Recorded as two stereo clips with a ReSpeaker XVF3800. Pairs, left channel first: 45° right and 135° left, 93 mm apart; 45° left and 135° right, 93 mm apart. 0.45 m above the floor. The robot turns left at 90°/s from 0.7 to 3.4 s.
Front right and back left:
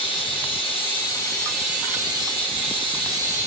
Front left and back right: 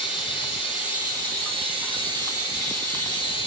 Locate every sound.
0.0 s running water: 50° right, 2.0 m; by 3.5 s 70° left, 2.0 m